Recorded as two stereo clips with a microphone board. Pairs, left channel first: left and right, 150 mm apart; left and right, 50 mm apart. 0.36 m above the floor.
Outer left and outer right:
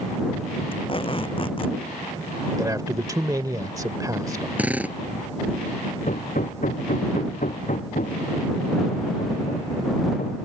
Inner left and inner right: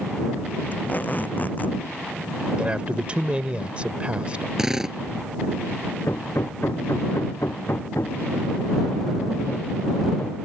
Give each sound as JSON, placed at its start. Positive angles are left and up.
{"t": 0.7, "sound": "tape being pulled", "side_deg": 35}
{"t": 2.6, "sound": "a man speaking", "side_deg": -25}
{"t": 4.6, "sound": "a drill", "side_deg": -10}
{"t": 6.1, "sound": "hammering", "side_deg": 60}